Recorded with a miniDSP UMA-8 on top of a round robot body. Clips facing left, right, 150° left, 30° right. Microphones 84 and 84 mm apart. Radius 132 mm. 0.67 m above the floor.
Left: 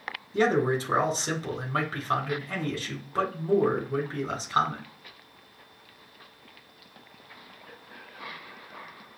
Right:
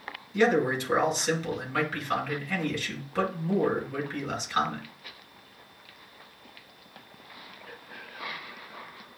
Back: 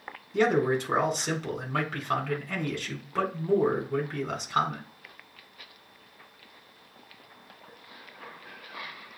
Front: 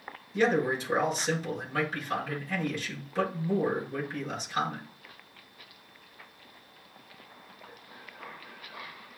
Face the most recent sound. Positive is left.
turn(degrees=135)